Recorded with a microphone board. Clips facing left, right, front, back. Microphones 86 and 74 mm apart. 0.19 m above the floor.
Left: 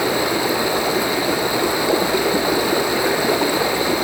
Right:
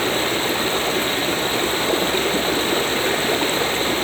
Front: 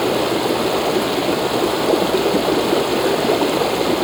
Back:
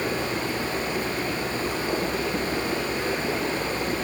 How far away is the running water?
About 2 m.